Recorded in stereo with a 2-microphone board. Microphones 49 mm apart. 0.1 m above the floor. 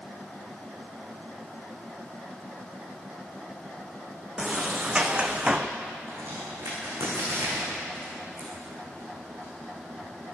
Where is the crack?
80° right, 10 m.